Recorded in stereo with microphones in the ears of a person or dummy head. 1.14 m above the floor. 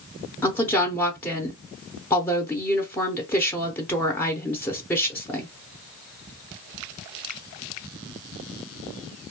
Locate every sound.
0.4 s a woman speaking: 10° left (ahead or behind), 0.6 m